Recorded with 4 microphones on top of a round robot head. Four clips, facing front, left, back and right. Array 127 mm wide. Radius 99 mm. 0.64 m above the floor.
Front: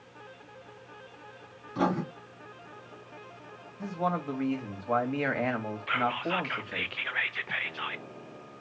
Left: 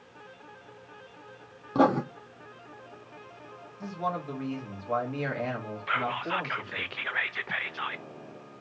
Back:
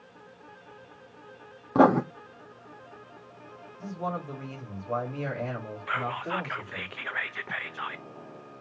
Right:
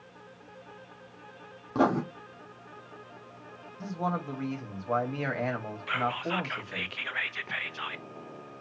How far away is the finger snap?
I don't hear a finger snap.